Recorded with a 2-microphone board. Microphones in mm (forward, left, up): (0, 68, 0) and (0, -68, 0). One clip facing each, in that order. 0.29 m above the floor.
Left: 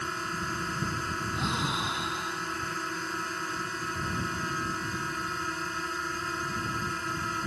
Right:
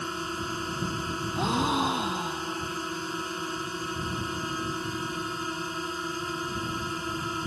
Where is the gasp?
50° right (ahead or behind).